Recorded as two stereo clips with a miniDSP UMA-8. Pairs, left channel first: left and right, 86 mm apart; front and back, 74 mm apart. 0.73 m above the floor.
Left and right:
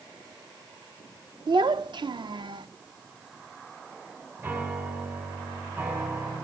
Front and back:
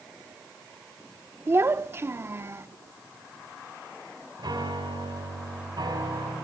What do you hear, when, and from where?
1.5 s a child speaking: 120° right, 0.6 m
4.4 s a piano: 155° right, 4.5 m